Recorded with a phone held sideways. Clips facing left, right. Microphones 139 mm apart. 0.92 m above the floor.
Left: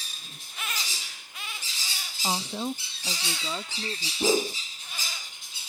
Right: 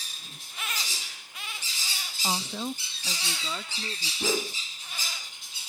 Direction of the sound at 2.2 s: 10° left (ahead or behind).